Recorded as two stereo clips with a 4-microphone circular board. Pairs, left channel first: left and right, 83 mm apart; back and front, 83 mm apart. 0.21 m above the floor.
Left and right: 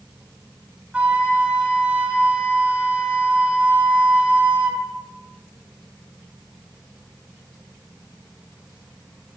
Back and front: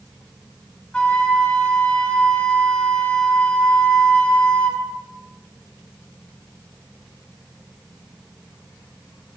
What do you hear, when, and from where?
0.9 s a flute: 130° right, 0.6 m